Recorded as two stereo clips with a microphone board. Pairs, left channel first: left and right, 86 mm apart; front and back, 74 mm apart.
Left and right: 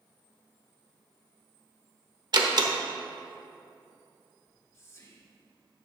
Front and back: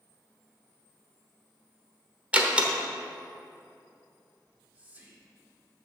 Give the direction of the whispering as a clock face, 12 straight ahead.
8 o'clock.